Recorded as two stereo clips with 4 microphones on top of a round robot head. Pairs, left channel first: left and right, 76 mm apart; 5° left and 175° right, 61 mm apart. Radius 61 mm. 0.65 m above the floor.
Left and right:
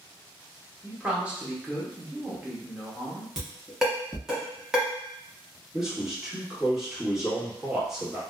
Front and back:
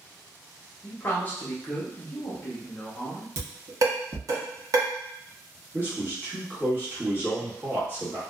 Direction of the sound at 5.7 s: 165° right.